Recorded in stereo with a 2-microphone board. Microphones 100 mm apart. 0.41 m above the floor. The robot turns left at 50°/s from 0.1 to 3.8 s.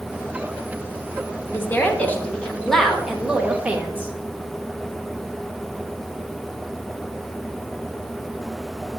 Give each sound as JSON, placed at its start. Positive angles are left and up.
{"t": 1.5, "sound": "a woman speaking", "side_deg": 25, "distance_m": 0.9}